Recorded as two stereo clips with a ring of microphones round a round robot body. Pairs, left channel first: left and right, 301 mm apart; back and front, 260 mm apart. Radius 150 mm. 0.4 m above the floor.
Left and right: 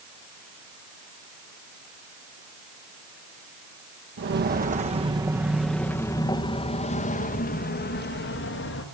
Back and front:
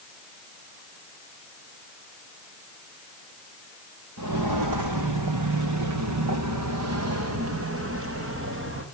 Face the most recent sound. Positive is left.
turn(degrees=40)